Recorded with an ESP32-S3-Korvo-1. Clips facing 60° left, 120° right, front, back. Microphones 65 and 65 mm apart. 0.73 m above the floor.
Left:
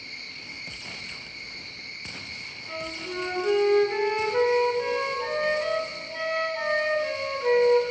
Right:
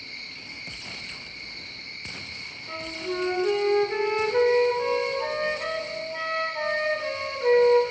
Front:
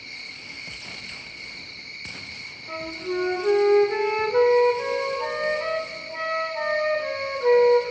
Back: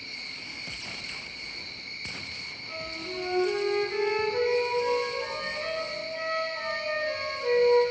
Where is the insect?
10° right, 4.5 m.